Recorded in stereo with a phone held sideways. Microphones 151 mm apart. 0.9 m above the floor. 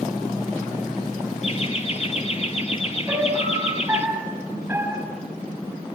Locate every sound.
1.4 s laughter: 45° left (ahead or behind), 1.9 m
3.1 s a piano: 15° right (ahead or behind), 5 m